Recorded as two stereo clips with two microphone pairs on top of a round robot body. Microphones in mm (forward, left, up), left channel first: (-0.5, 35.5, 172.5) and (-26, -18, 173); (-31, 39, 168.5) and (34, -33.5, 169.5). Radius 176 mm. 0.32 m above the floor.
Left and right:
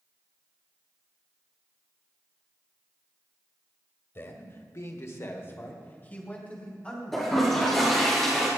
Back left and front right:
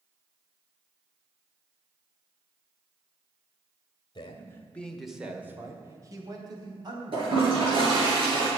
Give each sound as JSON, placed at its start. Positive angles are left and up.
{"t": 4.2, "sound": "a man speaking", "azimuth_deg": 95, "distance_m": 1.8}
{"t": 7.1, "sound": "a toilet flushing", "azimuth_deg": -20, "distance_m": 6.0}